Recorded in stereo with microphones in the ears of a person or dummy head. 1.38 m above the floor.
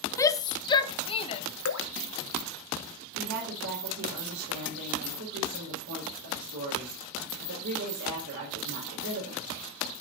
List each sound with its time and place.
0.2 s a shout: 15° left (ahead or behind), 0.5 m; by 1.4 s 30° left (ahead or behind), 1.1 m
1.6 s dripping: 80° left, 0.9 m
3.1 s a woman speaking: 85° right, 5 m